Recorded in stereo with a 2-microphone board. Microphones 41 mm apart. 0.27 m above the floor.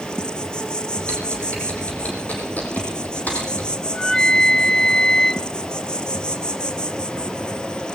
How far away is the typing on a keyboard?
About 5 m.